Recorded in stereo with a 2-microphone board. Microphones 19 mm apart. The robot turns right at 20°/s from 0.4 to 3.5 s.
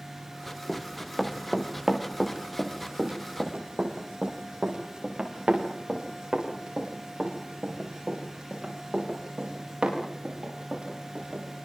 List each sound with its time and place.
0.7 s running footsteps: 5° left (ahead or behind), 4 m; by 11.4 s 55° right (ahead or behind), 13 m